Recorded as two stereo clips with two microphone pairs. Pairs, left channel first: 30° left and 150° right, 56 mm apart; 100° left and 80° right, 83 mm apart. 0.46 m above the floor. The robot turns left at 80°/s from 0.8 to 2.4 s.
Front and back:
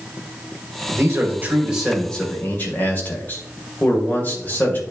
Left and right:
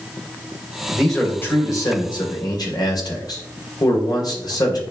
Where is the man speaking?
160° right, 2 m; by 4.8 s 80° left, 2 m.